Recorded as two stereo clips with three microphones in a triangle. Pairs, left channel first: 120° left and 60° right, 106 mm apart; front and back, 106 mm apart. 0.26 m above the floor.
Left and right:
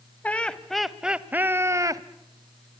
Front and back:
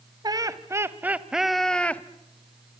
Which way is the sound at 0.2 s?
170° right.